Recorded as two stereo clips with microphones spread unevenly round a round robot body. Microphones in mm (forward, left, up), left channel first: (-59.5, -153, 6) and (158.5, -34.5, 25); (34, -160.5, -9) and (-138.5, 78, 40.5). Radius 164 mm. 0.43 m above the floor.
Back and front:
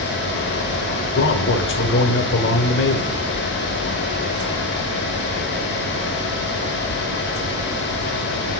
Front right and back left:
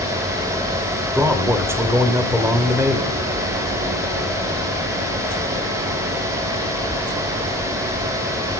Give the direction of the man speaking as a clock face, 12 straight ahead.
5 o'clock.